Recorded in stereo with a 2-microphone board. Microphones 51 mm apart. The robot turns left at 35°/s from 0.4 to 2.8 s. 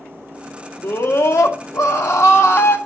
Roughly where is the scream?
Behind left.